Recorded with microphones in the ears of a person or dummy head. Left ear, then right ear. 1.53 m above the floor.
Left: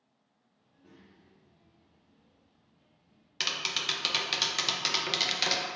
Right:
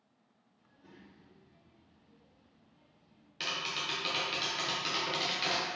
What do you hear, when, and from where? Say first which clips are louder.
0.6 s a child speaking: right 1 dB; 30° right (ahead or behind), 2.0 m
3.4 s tapping: left 4 dB; 30° left (ahead or behind), 0.5 m